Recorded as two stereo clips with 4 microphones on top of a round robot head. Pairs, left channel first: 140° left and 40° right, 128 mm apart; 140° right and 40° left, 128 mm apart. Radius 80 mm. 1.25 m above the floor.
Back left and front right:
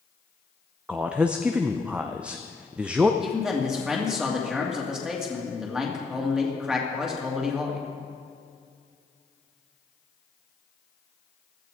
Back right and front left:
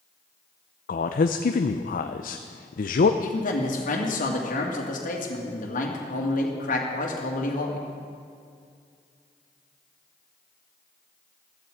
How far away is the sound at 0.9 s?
About 0.6 m.